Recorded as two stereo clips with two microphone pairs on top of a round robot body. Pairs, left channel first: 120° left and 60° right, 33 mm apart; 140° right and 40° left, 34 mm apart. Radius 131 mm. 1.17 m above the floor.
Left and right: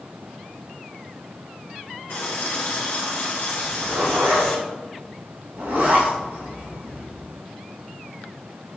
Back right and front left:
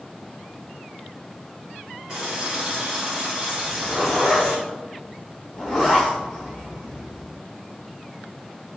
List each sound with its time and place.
2.1 s a running tap: 110° left, 2.5 m
3.6 s a zipper: 75° right, 1.5 m